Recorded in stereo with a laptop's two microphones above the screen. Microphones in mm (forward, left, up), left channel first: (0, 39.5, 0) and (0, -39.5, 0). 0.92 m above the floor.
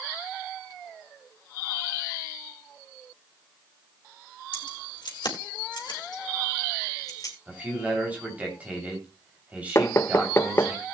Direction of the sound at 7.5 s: 15° right (ahead or behind).